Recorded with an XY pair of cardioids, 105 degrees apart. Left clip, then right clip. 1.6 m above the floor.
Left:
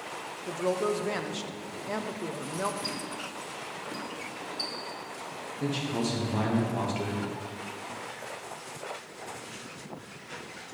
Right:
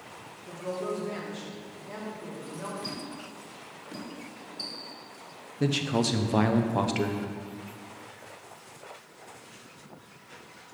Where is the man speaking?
50° right, 0.9 m.